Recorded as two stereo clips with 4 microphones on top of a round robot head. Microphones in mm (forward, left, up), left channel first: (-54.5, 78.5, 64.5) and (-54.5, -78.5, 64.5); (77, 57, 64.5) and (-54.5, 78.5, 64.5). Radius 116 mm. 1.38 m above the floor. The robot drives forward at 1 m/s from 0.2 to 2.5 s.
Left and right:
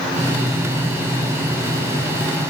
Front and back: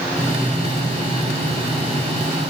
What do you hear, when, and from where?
Only background noise.